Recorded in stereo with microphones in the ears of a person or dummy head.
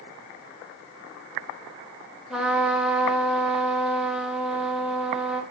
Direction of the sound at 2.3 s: 5° right (ahead or behind).